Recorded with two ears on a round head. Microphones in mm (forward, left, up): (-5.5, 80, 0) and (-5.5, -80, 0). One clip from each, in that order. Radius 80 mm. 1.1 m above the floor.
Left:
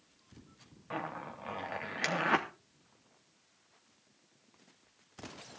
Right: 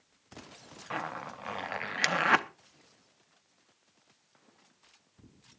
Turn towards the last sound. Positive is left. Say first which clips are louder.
# right 3 dB
turn(degrees=-40)  # may be behind; listen again after turning